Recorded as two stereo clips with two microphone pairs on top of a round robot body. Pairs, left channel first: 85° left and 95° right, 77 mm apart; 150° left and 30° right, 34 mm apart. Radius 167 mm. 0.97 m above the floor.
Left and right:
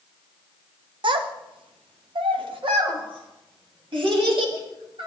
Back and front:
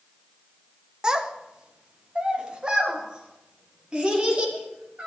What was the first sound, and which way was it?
A child speaking, 105° right.